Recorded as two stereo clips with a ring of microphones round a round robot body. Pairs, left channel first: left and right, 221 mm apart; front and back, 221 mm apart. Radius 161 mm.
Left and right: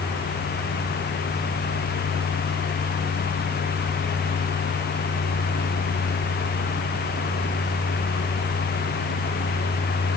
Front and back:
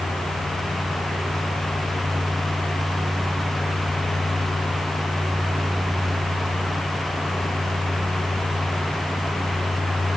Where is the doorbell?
No doorbell in this recording.